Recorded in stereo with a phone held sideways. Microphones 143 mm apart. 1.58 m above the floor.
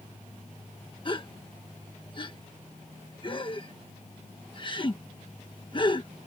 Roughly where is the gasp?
Left.